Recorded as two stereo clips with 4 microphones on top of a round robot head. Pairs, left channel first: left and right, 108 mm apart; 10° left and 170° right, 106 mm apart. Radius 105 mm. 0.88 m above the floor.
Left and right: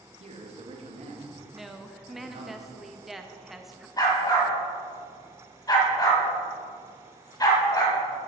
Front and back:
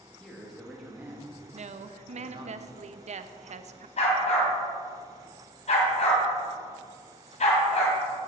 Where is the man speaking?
75° right, 2 m; by 2.5 s 130° right, 2 m.